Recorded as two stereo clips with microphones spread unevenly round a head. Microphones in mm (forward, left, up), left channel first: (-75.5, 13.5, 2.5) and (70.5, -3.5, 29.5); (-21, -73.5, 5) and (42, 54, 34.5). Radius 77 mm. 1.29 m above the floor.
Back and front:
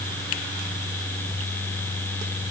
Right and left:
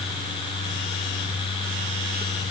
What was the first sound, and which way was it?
Only background noise.